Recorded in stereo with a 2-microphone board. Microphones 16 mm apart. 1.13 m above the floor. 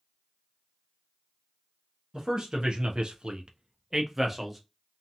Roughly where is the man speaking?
Right.